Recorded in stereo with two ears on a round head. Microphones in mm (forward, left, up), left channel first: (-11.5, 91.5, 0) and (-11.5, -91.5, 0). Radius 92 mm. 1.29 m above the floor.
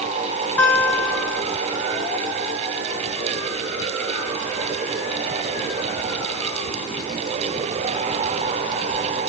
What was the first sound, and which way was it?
A guitar, 5° left (ahead or behind).